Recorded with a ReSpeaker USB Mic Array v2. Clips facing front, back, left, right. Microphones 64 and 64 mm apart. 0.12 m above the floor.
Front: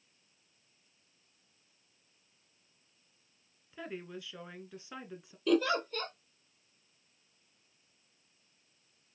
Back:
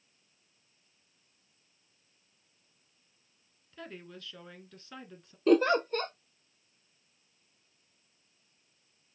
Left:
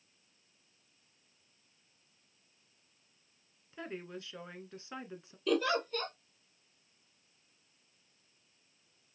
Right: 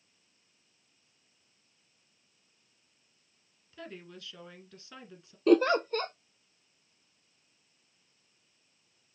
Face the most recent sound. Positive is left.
turn(degrees=-135)